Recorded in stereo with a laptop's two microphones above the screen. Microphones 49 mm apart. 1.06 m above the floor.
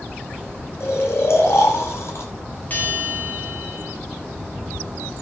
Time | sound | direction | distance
0.8 | snoring | 55° left (ahead or behind) | 5.5 m
2.7 | a bell | 35° left (ahead or behind) | 3 m